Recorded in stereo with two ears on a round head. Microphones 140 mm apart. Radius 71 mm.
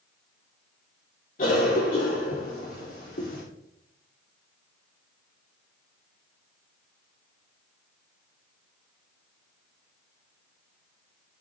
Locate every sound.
1.4 s a cough: 50° left (ahead or behind), 2.5 m